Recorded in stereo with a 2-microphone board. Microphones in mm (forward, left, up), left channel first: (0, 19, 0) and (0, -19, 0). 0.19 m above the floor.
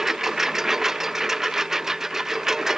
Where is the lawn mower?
10° right (ahead or behind).